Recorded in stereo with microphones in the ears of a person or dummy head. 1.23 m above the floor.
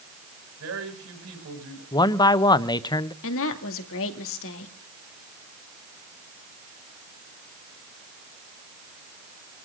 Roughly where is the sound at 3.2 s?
Left.